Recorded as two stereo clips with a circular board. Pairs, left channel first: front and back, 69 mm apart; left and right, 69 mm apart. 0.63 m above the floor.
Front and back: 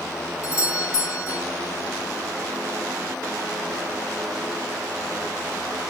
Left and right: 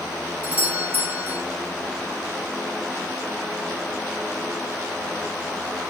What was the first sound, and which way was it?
A doorbell, 30° right.